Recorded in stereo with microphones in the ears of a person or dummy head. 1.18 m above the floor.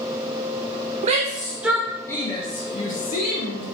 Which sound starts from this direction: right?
A shout, at 1.0 s.